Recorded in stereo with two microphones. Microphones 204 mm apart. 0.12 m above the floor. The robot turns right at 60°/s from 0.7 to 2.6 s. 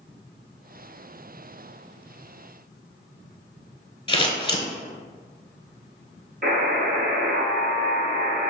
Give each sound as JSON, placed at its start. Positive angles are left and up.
{"t": 4.1, "sound": "scissors", "side_deg": 25, "distance_m": 0.7}
{"t": 6.4, "sound": "a buzzer", "side_deg": -50, "distance_m": 1.2}